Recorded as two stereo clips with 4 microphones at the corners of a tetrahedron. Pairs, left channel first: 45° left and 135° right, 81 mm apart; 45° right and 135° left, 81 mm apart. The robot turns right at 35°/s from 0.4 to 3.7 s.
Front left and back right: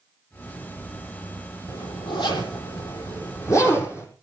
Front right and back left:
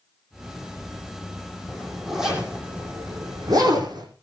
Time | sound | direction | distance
1.7 | a zipper | 35° left | 5.5 m